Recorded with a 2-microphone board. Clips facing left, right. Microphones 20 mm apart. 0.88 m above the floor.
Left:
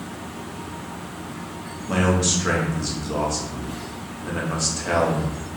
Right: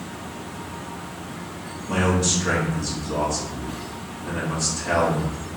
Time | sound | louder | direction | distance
1.9 | a man speaking | left 1 dB | 20° left (ahead or behind) | 0.9 m